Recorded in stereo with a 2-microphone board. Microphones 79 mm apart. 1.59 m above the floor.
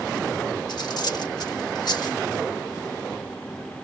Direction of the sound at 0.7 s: 60° left (ahead or behind).